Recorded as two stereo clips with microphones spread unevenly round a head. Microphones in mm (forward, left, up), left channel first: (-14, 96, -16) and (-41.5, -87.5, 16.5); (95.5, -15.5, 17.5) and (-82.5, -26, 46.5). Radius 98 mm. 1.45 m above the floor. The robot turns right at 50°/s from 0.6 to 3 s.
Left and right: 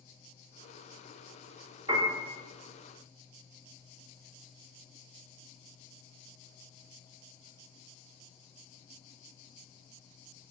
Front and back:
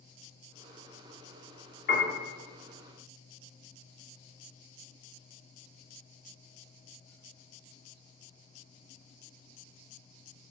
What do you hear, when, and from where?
1.9 s a piano: 35° right, 2.5 m; by 2.1 s 20° right, 2.5 m